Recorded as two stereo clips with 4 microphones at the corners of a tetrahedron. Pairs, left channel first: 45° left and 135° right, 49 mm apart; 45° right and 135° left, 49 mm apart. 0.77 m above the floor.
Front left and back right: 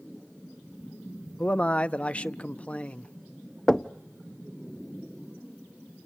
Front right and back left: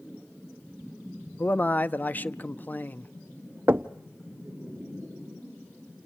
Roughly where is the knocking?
Behind left.